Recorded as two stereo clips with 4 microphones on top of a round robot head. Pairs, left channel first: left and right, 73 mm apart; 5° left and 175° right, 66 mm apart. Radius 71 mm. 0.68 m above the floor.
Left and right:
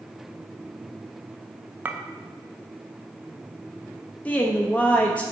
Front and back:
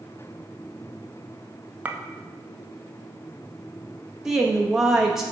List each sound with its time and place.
1.9 s a clink: 135° right, 0.6 m
4.2 s a woman speaking: 110° left, 0.7 m